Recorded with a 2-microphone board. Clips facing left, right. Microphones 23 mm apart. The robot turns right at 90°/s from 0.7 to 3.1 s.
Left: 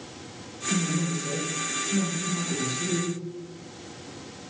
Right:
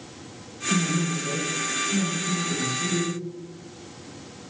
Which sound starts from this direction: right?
A man speaking, at 0.7 s.